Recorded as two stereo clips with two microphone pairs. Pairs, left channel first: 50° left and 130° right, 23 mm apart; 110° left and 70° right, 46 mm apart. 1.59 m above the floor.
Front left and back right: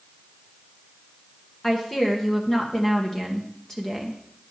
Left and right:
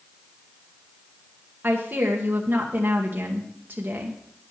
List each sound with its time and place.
1.6 s a woman speaking: 20° right, 1.6 m